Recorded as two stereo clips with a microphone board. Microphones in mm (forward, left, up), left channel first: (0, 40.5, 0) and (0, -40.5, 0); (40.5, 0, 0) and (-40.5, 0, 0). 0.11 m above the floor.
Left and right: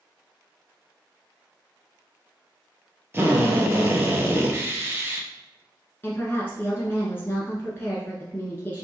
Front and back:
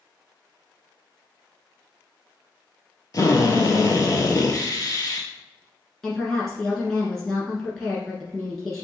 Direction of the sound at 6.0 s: 80° left.